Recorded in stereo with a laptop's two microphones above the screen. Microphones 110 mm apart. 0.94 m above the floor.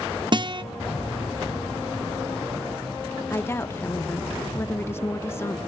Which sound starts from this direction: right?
A guitar, at 0.3 s.